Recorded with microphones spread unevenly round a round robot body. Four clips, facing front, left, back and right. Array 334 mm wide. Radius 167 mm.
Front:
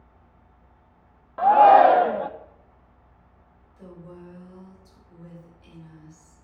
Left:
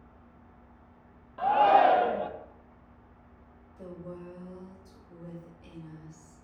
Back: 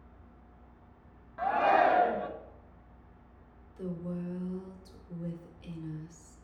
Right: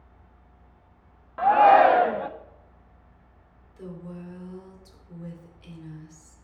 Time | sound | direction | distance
1.4 | a shout | 20° right | 0.7 m
3.8 | a woman speaking | 150° right | 2.5 m